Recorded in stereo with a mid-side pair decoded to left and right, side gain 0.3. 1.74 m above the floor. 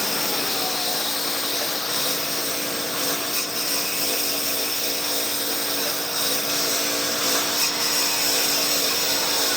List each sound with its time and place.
0.0 s a lawn mower: 5° right